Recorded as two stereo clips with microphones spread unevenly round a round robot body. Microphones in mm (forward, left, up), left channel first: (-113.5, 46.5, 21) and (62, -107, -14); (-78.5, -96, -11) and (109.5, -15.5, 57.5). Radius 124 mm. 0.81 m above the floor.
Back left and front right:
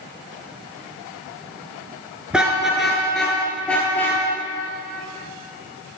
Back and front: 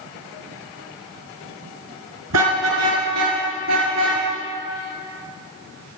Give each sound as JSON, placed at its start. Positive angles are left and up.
{"t": 2.3, "sound": "a car horn", "azimuth_deg": 45, "distance_m": 5.0}